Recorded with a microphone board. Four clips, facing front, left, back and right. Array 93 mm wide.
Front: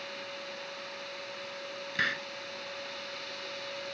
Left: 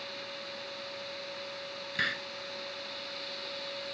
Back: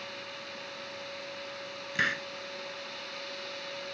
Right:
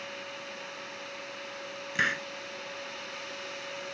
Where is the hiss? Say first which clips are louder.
Right 5 dB, back 2 dB; 110° right.